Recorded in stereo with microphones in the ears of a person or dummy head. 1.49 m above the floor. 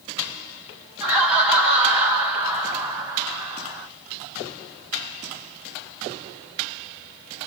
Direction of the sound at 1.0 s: 10° right (ahead or behind).